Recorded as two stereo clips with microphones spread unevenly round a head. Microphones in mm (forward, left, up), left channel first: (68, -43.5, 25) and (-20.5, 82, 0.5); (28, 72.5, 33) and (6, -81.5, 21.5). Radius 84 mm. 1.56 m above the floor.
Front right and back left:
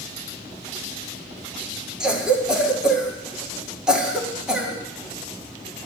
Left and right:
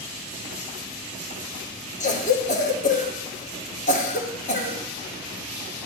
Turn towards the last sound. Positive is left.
turn(degrees=40)